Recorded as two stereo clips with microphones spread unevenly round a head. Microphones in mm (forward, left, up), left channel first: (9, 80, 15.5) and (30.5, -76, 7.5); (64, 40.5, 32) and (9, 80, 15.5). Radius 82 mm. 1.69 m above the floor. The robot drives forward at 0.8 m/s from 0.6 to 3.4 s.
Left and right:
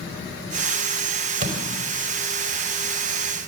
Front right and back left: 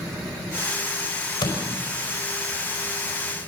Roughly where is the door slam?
Ahead right.